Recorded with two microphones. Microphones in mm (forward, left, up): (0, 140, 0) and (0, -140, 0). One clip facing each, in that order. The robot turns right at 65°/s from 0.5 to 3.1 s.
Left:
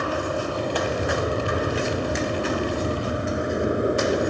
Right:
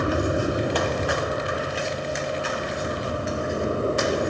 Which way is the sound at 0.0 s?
20° right (ahead or behind).